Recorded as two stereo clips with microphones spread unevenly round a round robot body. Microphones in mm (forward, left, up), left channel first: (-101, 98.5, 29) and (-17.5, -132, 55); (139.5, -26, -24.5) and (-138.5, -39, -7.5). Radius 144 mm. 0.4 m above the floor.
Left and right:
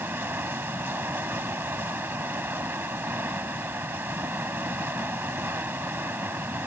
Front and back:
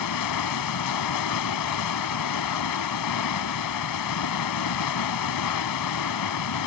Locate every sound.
0.0 s running water: 15° left